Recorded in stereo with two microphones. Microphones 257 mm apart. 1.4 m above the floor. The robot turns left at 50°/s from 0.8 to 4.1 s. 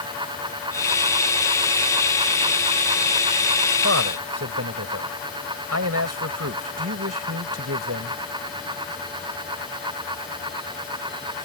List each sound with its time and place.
3.8 s a man speaking: 60° right (ahead or behind); by 8.2 s 70° right (ahead or behind)